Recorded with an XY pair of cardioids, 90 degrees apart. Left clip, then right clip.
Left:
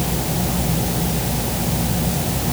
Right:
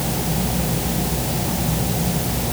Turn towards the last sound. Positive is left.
No sound to turn to.